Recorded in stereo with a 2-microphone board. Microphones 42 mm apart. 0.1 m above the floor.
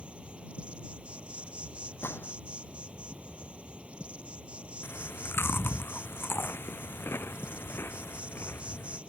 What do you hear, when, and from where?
0.0 s an insect: 25° right (ahead or behind)
2.0 s a gunshot: 70° left (ahead or behind)
4.8 s chewing: 65° left (ahead or behind)